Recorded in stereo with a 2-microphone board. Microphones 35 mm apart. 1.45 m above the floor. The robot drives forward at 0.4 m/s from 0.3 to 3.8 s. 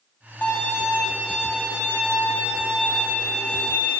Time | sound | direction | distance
0.4 | a violin | 50° left (ahead or behind) | 6.5 m